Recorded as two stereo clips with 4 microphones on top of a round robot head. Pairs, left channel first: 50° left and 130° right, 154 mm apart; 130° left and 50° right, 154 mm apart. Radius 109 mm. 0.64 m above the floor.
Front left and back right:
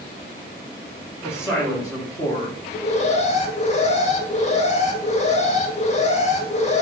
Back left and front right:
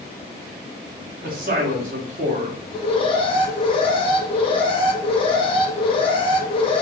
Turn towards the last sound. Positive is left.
turn(degrees=80)